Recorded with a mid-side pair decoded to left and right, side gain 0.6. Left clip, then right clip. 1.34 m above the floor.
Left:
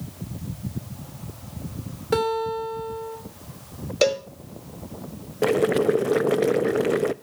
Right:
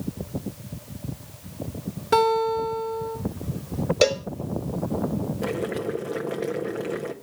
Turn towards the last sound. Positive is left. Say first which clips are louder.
# left 10 dB
turn(degrees=40)